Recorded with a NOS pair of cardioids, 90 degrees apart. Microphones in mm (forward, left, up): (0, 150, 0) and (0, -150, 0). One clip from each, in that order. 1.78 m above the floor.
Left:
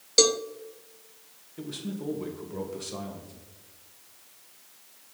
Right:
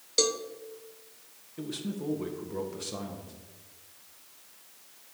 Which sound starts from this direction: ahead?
A man speaking, at 1.6 s.